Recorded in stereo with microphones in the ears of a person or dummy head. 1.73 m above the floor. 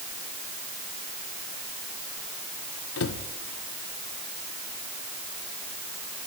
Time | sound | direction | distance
3.0 | a cupboard door | 70° left (ahead or behind) | 1.3 m